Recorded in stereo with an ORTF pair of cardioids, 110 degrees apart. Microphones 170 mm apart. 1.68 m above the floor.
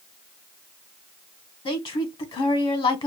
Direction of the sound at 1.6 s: 30° left.